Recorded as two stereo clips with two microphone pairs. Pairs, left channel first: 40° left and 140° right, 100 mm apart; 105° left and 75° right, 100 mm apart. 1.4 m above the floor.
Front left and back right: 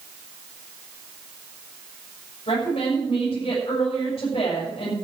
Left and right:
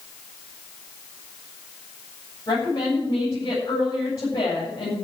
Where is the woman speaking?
50° left, 7 m.